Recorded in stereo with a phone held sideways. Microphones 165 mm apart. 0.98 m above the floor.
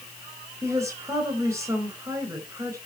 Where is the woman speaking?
20° right (ahead or behind), 4.5 m.